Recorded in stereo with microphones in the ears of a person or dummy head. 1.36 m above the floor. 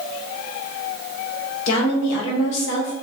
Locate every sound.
1.7 s a woman speaking: 70° left (ahead or behind), 1.1 m